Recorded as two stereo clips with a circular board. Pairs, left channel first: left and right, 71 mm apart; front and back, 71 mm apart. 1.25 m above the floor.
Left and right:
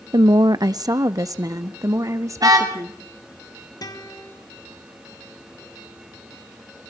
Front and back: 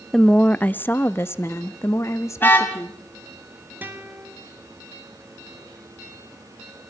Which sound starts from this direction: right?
A woman speaking, at 0.1 s.